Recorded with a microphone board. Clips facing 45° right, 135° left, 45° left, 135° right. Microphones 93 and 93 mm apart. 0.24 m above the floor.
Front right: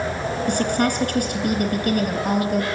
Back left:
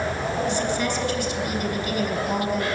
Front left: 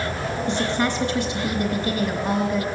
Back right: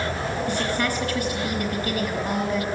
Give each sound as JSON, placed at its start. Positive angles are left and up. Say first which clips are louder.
{"t": 0.5, "sound": "a woman speaking", "louder": "front right 3 dB, front left 4 dB", "azimuth_deg": -20, "distance_m": 3.0}